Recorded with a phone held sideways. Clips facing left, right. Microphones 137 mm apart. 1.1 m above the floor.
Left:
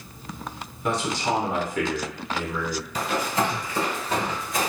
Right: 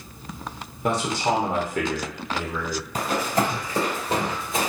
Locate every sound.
0.8 s a man speaking: 45° right (ahead or behind), 0.8 m
3.0 s running footsteps: 45° right (ahead or behind), 1.6 m; by 4.7 s 30° right (ahead or behind), 1.2 m